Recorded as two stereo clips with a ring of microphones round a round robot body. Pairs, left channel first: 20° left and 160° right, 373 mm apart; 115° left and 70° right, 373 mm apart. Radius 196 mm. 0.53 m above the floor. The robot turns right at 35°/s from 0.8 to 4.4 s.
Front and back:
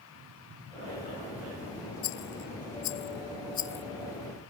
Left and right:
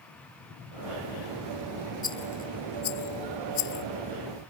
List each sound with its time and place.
2.0 s a rattle: 35° left; by 3.9 s 100° left